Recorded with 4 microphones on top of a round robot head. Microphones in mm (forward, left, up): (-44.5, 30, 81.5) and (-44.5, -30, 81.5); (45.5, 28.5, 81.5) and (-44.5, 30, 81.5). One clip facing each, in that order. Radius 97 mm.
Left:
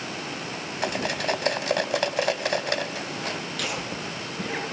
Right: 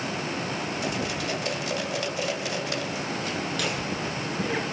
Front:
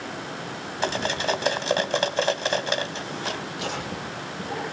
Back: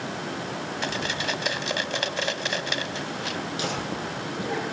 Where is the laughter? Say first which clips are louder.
Right 2 dB, back 2 dB; straight behind, 9 m.